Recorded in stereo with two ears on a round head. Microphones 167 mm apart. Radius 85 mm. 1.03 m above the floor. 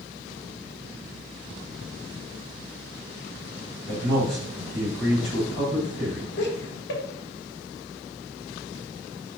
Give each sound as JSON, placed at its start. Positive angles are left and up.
{"t": 3.9, "sound": "a man speaking", "side_deg": 25, "distance_m": 2.5}
{"t": 6.4, "sound": "laughter", "side_deg": 70, "distance_m": 1.1}